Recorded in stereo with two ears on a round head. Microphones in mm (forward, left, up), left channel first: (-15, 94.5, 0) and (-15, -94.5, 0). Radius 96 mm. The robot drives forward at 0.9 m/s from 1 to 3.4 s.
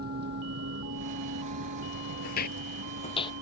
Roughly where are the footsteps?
Left.